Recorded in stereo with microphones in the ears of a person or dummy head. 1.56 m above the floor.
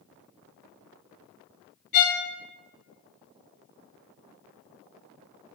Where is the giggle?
I don't hear a giggle.